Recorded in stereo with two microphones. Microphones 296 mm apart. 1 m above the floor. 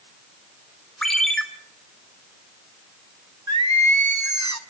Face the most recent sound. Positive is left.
turn(degrees=-70)  # may be behind; listen again after turning